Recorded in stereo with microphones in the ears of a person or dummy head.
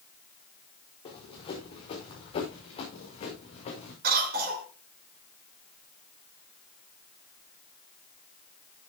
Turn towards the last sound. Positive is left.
turn(degrees=-60)  # may be behind; listen again after turning